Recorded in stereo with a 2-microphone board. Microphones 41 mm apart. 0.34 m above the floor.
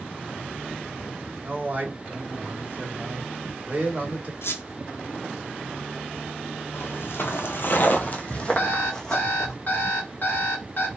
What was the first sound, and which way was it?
A man speaking, 40° right (ahead or behind).